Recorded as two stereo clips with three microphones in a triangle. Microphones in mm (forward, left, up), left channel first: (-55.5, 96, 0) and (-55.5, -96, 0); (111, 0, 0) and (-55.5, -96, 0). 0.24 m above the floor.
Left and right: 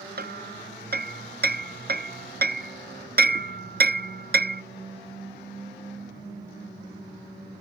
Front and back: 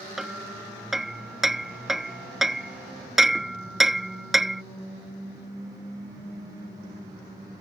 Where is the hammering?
60° right.